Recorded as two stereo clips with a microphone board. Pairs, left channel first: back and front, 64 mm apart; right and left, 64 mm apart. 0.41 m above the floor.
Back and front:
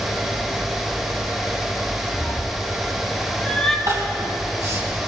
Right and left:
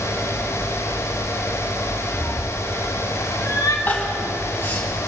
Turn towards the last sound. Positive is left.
turn(degrees=-30)